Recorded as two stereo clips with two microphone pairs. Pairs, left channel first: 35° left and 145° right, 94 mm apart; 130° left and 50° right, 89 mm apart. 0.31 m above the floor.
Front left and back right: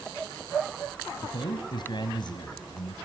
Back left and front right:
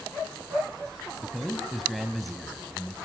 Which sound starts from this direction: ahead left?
A man speaking, at 1.2 s.